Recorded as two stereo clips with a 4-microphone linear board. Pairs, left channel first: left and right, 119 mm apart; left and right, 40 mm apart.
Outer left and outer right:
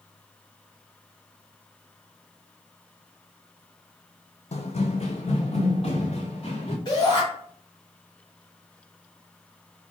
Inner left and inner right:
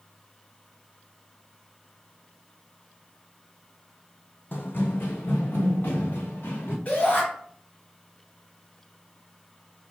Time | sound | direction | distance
4.5 | running footsteps | 70° left (ahead or behind) | 0.8 m
6.8 | a shout | 40° left (ahead or behind) | 1.9 m